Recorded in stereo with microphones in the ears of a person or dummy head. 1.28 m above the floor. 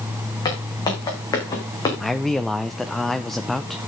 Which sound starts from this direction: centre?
A man speaking, at 2.0 s.